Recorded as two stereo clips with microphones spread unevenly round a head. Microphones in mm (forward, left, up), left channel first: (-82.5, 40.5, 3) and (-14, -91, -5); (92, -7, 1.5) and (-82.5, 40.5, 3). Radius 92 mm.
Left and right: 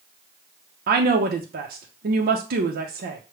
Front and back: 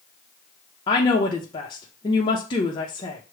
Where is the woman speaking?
80° right, 0.6 m.